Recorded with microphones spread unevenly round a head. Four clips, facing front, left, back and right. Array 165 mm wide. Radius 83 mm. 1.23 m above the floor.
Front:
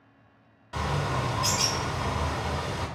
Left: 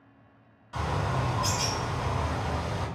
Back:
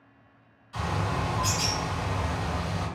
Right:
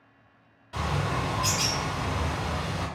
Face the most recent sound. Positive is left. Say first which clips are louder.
# right 1 dB, front 1 dB
turn(degrees=-20)